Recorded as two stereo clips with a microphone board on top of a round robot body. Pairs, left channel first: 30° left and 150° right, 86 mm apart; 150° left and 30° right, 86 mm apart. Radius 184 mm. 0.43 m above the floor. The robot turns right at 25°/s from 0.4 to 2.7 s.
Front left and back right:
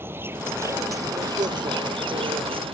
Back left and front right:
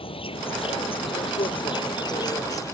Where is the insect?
145° left; by 2.8 s 160° right.